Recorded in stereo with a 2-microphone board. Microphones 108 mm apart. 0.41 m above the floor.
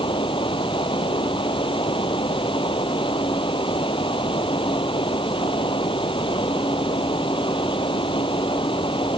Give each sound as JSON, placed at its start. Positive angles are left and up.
{"t": 0.0, "sound": "running water", "side_deg": 50}